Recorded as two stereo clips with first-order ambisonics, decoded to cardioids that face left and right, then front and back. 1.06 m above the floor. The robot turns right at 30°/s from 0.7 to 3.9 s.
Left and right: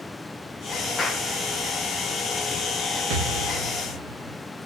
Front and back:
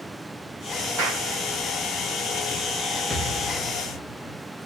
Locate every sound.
1.0 s a clap: 160° left, 2.5 m; by 1.3 s 170° left, 2.5 m
3.1 s an explosion: 85° right, 1.3 m; by 4.4 s 60° right, 1.3 m